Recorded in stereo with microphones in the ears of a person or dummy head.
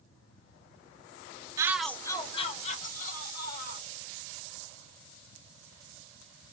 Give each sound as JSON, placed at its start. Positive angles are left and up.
{"t": 1.6, "sound": "a shout", "side_deg": -20, "distance_m": 0.6}